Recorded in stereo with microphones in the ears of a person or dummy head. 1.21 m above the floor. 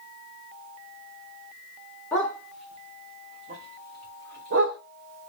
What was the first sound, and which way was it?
A dog barking, 15° left (ahead or behind).